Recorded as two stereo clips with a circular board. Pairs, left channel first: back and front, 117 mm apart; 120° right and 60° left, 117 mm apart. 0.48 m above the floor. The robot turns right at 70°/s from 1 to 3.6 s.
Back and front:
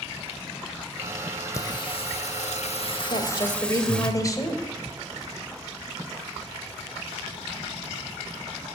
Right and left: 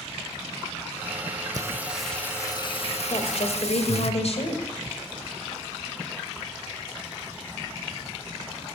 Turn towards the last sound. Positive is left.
turn(degrees=-125)